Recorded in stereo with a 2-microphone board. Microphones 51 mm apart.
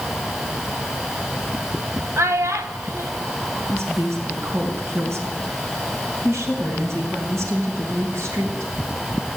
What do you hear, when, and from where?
2.2 s a child speaking: 75° right (ahead or behind), 1.4 m
3.7 s a woman speaking: 70° right (ahead or behind), 3.5 m